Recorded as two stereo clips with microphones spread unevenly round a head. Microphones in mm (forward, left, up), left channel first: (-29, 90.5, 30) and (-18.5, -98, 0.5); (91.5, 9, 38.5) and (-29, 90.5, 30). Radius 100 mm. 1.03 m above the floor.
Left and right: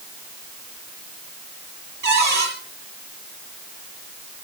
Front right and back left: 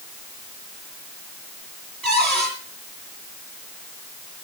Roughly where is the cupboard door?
Behind right.